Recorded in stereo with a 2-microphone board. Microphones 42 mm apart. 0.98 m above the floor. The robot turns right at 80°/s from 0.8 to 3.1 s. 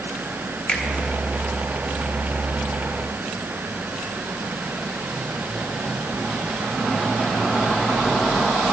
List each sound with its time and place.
0.7 s a finger snap: 25° left (ahead or behind), 1.9 m; by 0.8 s 30° left (ahead or behind), 1.9 m